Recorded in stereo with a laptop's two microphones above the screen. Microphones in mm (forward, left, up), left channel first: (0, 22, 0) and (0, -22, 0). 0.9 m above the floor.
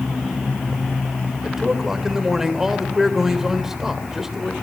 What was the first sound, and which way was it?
A man speaking, 10° right (ahead or behind).